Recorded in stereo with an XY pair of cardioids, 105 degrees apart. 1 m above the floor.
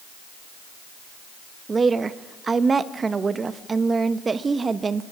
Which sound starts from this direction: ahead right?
A woman speaking, at 1.7 s.